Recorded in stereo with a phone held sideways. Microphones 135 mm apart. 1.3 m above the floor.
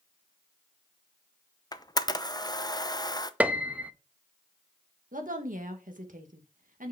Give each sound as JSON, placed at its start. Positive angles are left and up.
{"t": 1.7, "sound": "a camera shutter", "side_deg": 30, "distance_m": 0.6}
{"t": 3.4, "sound": "a piano", "side_deg": -10, "distance_m": 0.5}
{"t": 5.1, "sound": "a woman speaking", "side_deg": -75, "distance_m": 1.6}